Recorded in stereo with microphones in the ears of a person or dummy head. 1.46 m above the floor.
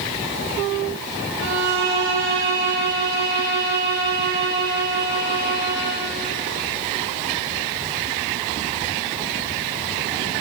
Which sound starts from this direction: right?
A violin, at 1.4 s.